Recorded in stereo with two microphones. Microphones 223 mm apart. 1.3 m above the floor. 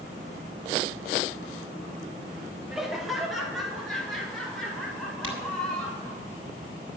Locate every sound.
2.7 s laughter: centre (ahead or behind), 3 m; by 6.2 s 5° left (ahead or behind), 7 m
5.2 s a crack: 70° right (ahead or behind), 4.5 m